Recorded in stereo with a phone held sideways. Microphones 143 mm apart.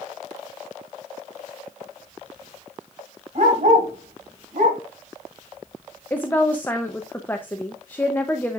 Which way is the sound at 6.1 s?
15° left (ahead or behind).